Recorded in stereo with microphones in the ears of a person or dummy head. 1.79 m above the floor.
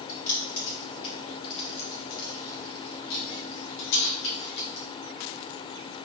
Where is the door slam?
No door slam in this recording.